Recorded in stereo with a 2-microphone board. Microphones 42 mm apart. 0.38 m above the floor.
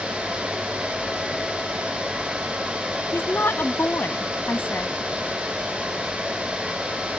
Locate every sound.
3.1 s a woman speaking: 65° left (ahead or behind)